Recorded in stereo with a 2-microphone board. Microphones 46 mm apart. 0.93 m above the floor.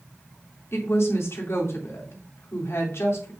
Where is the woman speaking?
65° left (ahead or behind), 3 m.